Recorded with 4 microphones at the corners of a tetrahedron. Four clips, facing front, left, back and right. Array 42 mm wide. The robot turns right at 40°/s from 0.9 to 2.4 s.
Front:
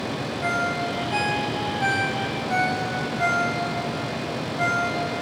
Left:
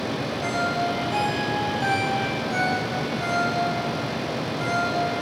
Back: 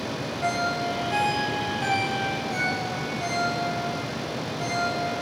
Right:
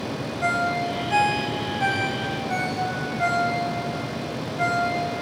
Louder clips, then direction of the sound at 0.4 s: Right 2 dB, front 1 dB; 105° right.